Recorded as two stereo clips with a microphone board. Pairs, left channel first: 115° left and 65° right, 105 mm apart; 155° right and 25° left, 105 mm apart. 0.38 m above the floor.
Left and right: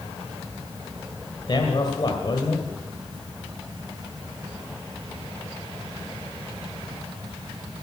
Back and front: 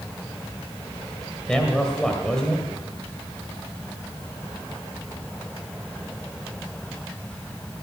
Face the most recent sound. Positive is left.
turn(degrees=120)